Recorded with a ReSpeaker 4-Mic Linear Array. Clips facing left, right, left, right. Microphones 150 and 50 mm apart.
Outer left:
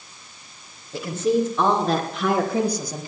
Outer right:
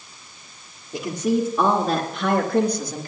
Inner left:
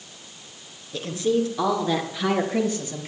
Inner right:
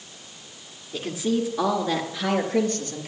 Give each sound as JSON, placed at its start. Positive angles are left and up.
{"t": 0.9, "sound": "a woman speaking", "side_deg": -20, "distance_m": 3.0}